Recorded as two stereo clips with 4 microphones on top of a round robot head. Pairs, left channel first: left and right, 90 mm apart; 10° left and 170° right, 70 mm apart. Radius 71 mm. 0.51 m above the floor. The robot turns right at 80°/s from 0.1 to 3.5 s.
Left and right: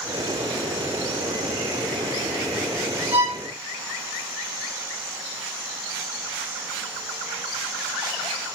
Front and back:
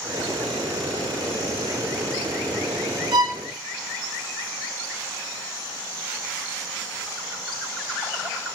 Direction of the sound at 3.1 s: 160° right.